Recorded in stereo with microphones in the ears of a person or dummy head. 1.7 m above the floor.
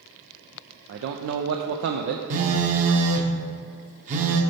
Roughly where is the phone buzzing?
Right.